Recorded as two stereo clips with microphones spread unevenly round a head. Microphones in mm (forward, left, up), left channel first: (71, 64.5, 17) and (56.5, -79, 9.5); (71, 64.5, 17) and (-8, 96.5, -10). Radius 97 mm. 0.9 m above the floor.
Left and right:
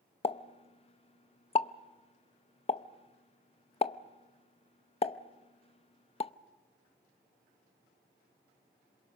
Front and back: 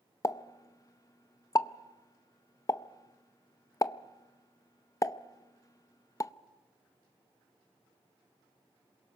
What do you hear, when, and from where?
0.2 s a pop: 35° left, 0.7 m